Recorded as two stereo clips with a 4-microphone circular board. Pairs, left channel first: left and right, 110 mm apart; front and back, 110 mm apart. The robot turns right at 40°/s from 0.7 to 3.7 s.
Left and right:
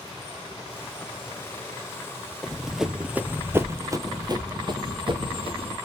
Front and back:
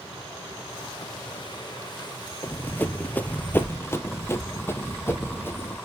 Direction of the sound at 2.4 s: 5° left.